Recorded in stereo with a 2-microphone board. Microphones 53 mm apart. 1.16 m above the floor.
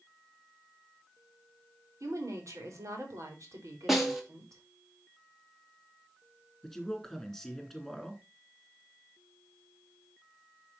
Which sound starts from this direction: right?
A woman speaking, at 2.0 s.